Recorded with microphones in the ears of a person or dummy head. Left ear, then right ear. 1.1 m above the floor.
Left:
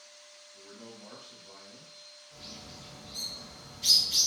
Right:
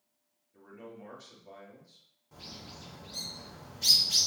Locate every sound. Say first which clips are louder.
0.5 s a man speaking: right 2 dB; 75° right (ahead or behind), 1.8 m
2.3 s a bird: right 1 dB; 65° right (ahead or behind), 1.2 m